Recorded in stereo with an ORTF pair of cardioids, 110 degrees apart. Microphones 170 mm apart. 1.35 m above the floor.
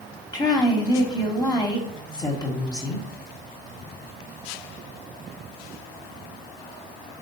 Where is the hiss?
No hiss in this recording.